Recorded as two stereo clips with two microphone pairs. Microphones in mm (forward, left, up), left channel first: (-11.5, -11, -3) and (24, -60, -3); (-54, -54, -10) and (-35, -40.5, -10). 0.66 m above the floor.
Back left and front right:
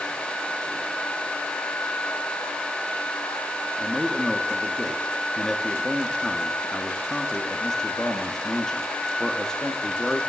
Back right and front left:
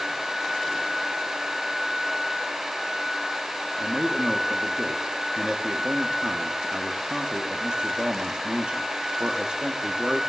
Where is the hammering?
I don't hear hammering.